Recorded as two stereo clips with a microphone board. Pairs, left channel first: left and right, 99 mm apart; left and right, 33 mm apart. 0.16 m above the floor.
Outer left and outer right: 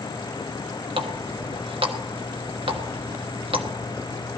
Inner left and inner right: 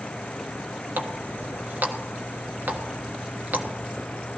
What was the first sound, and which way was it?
A running tap, 60° right (ahead or behind).